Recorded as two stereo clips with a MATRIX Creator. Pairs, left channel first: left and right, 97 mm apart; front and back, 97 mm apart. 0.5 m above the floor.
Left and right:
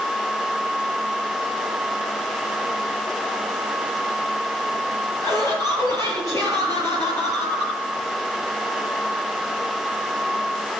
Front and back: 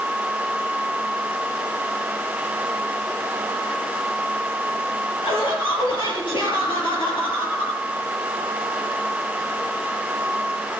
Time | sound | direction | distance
5.2 | laughter | 30° left | 9 m